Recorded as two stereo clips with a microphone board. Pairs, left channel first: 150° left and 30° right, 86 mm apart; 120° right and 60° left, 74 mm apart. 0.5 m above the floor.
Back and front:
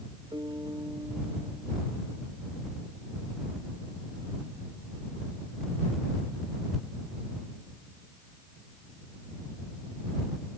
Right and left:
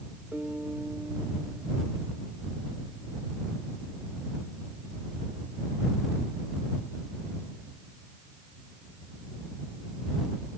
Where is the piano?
5° right.